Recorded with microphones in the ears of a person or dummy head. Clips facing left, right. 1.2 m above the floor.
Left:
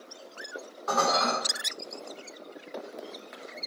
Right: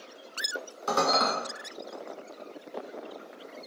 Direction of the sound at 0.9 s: 50° right (ahead or behind).